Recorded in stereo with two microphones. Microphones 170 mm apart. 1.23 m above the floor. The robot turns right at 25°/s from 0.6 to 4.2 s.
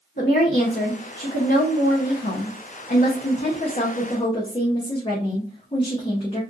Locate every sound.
0.2 s a woman speaking: 60° left, 0.7 m; by 6.4 s 150° left, 0.7 m